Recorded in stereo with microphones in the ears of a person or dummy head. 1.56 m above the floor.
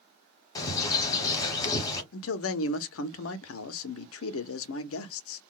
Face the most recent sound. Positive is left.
turn(degrees=65)  # may be behind; listen again after turning